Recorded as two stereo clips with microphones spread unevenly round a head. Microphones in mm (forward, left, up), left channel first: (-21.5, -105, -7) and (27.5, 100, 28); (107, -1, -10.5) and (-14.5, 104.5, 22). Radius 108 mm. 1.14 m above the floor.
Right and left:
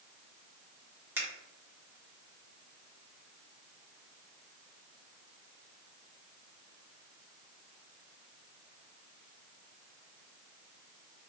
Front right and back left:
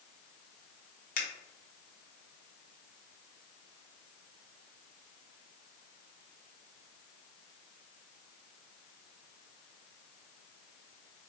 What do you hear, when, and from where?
1.2 s a finger snap: 5° right, 1.2 m